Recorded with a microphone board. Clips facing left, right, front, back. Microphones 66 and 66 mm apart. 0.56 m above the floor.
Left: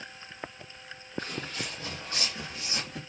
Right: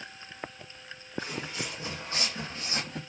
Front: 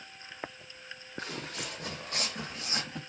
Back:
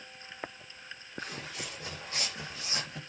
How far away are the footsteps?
About 1.1 m.